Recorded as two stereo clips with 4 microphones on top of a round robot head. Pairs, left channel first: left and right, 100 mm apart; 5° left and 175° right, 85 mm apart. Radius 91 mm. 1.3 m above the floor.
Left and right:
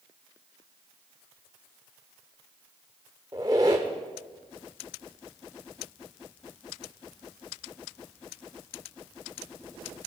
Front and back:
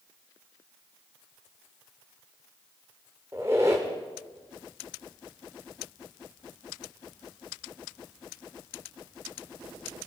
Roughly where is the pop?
No pop in this recording.